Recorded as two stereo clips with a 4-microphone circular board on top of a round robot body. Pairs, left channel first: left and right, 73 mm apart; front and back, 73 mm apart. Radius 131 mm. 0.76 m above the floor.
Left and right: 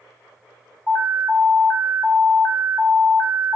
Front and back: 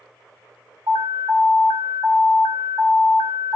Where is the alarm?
170° left, 3 m.